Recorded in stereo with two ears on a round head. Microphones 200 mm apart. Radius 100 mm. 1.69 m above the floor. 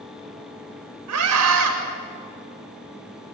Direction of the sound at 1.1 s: 75° right (ahead or behind).